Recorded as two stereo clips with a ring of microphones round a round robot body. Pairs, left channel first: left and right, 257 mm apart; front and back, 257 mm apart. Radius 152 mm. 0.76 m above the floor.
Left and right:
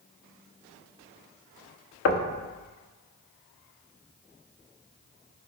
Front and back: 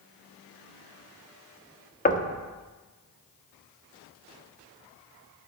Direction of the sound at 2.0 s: 60° left.